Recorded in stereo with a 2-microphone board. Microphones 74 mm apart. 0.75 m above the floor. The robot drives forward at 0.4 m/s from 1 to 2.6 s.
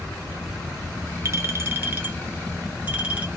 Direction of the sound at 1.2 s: 40° right (ahead or behind).